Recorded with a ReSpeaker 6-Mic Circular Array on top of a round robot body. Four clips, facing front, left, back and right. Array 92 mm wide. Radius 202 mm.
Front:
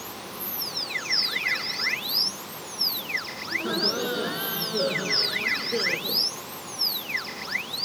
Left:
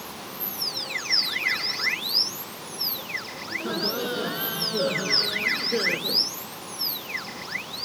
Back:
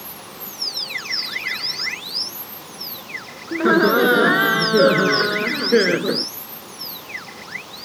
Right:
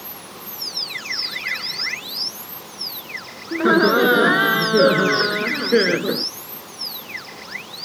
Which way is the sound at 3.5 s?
130° right.